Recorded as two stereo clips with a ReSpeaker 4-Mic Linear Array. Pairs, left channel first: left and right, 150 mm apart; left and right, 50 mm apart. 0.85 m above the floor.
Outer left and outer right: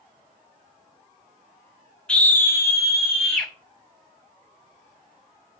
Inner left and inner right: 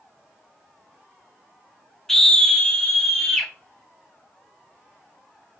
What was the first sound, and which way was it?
A scream, 5° left (ahead or behind).